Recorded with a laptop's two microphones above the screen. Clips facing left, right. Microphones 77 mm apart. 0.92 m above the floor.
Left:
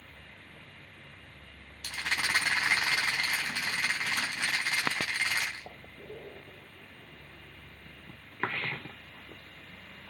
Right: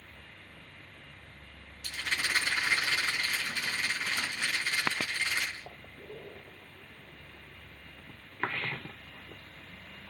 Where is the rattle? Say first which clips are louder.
Left 1 dB; 80° left, 3.5 m.